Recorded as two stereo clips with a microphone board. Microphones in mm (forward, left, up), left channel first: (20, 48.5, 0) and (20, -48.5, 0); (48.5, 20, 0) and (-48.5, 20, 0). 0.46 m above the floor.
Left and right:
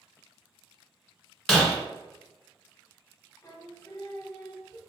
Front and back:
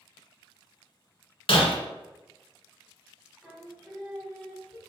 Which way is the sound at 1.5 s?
5° left.